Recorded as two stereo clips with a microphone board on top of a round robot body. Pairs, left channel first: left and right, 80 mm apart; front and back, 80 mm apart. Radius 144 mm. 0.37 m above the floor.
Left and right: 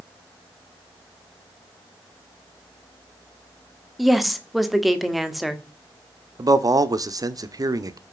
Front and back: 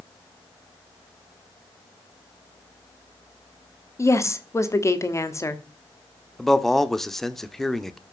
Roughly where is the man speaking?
Right.